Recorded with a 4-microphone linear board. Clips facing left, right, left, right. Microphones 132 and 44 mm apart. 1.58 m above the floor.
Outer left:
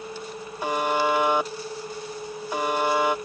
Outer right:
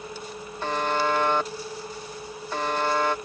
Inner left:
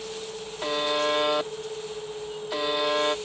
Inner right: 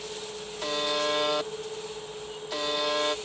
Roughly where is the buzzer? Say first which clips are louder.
Outer left 2 dB, inner left 3 dB; centre.